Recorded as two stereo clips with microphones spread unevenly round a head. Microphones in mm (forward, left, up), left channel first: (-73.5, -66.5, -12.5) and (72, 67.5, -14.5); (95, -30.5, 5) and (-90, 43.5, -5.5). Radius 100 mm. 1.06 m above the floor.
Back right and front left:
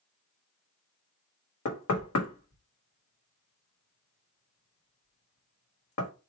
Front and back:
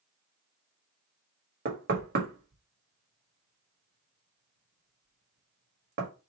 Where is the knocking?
155° right, 1.6 m.